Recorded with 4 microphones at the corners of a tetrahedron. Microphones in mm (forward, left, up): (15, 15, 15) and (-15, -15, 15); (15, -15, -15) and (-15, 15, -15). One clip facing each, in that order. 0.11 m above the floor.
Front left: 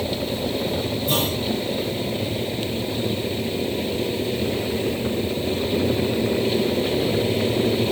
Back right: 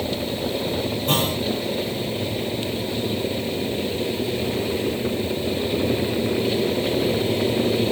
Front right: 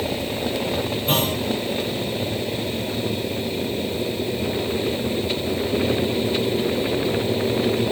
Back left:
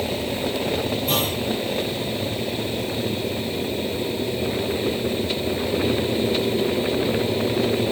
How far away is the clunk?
About 7 m.